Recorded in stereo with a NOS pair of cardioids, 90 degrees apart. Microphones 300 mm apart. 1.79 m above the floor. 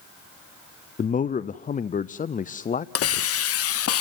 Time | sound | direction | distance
1.0 | a man speaking | 25° left | 0.5 m
3.0 | a hiss | 50° left | 0.8 m